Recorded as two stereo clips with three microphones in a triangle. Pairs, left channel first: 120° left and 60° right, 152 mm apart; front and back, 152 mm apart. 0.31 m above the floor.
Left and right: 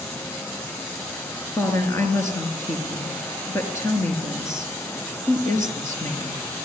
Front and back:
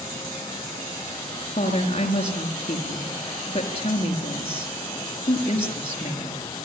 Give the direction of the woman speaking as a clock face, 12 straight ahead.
10 o'clock.